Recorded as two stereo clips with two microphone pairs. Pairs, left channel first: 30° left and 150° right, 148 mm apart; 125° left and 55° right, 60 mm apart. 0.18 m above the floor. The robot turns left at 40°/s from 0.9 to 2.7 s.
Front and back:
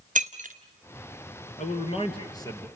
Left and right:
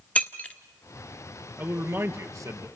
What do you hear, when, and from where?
0.1 s breaking glass: 175° right, 1.3 m
1.6 s a man speaking: straight ahead, 3 m; by 2.7 s 45° right, 3 m